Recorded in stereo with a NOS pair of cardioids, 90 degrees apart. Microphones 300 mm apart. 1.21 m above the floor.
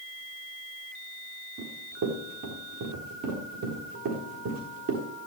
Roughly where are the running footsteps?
Ahead right.